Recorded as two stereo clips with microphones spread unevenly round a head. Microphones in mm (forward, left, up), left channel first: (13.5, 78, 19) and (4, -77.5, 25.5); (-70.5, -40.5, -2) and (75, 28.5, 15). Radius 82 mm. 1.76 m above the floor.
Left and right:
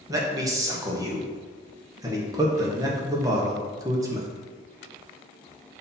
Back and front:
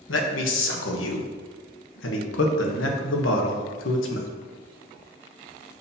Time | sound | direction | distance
0.1 | a man speaking | 160° right | 1.0 m